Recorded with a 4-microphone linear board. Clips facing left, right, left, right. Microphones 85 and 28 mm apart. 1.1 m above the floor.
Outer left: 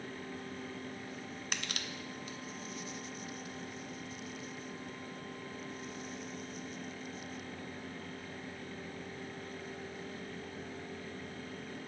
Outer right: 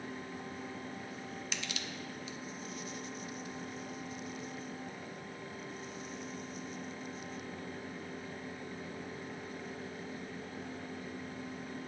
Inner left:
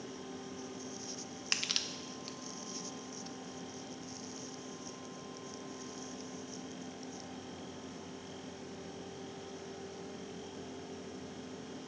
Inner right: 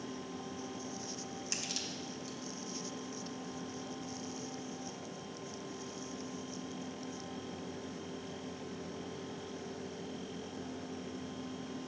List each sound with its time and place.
1.5 s crushing: 55° left (ahead or behind), 0.6 m